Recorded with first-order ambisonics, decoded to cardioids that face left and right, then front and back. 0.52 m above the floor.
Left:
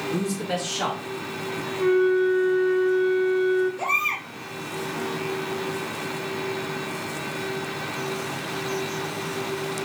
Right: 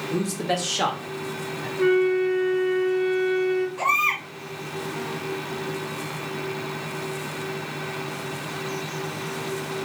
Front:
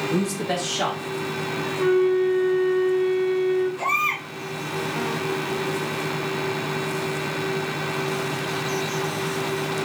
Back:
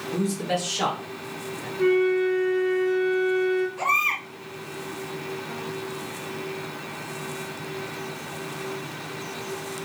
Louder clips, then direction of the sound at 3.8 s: Right 2 dB, even; 110° right.